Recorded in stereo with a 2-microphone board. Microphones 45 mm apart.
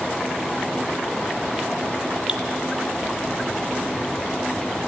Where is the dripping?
25° right (ahead or behind), 1.2 m.